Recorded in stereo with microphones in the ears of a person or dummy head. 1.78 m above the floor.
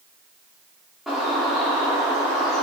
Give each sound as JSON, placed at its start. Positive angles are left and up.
{"t": 1.1, "sound": "a bird", "side_deg": 0, "distance_m": 1.4}